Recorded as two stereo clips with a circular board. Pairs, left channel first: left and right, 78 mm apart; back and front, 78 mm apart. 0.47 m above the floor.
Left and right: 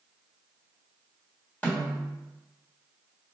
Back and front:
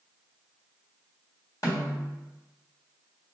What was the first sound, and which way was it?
A snare drum, 160° left.